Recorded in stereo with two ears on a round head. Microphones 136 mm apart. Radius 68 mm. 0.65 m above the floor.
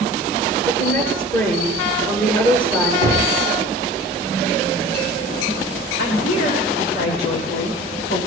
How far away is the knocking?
About 4.5 m.